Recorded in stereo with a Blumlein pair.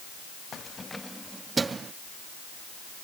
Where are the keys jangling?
25° left; by 1.9 s 20° right.